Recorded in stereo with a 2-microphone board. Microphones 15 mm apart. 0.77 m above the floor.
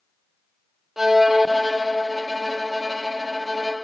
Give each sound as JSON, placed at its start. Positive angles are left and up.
{"t": 1.0, "sound": "a violin", "side_deg": -15, "distance_m": 1.6}